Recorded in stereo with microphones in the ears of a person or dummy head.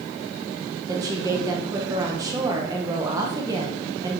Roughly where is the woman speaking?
Centre.